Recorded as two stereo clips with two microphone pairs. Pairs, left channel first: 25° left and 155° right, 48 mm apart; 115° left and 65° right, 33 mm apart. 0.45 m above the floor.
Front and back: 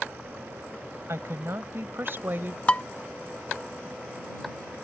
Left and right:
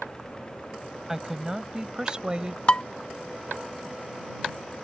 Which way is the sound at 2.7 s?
80° left.